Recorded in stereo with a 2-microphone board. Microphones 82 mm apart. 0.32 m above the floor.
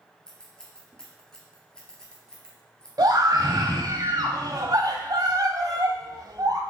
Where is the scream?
50° right (ahead or behind), 1.6 m.